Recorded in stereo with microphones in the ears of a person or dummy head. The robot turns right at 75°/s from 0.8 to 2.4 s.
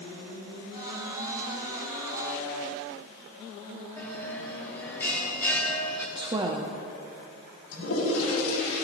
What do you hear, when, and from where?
4.0 s a bell: 10° left (ahead or behind), 1.7 m
6.2 s a woman speaking: 20° right (ahead or behind), 0.8 m
7.7 s a toilet flushing: 80° left, 5 m